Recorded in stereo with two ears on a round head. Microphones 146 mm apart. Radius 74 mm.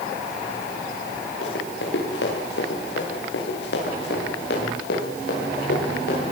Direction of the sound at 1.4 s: 75° left (ahead or behind).